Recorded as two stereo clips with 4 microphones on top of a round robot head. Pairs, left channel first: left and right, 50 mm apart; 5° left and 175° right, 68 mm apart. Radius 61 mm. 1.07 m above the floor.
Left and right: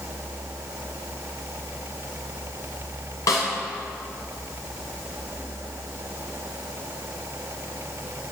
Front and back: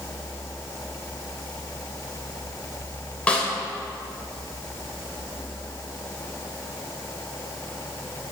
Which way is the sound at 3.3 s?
80° left.